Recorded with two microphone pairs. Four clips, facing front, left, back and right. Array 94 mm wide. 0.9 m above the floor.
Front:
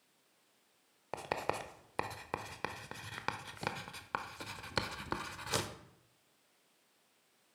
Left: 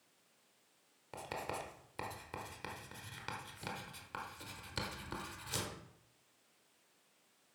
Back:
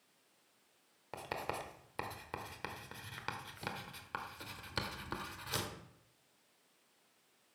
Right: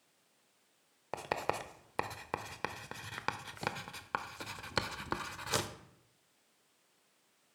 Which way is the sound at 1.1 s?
60° right.